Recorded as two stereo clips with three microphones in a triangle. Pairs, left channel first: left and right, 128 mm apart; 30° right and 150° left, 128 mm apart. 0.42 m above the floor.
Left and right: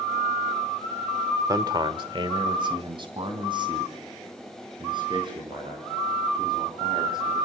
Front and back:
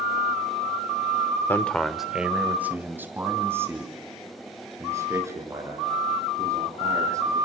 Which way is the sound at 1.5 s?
80° right.